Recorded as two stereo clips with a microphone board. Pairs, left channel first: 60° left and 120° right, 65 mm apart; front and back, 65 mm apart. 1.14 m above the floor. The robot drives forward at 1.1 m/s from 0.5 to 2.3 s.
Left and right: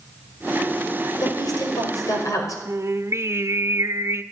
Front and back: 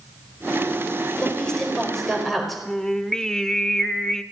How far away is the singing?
About 1.0 m.